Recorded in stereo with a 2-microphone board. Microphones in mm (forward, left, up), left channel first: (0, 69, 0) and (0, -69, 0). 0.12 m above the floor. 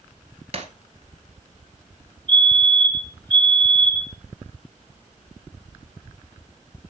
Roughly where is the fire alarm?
Right.